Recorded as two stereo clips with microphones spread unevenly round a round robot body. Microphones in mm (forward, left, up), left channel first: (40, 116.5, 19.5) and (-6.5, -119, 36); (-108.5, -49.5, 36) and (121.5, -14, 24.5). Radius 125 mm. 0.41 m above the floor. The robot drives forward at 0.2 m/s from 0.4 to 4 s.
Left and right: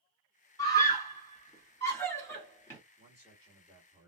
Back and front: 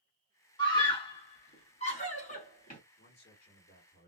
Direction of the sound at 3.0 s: 175° right.